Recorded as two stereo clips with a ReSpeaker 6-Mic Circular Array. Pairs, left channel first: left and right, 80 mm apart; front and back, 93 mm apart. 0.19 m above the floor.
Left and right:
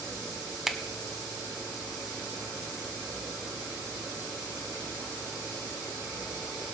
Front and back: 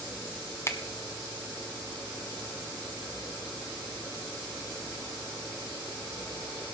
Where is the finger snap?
10° right, 0.9 m.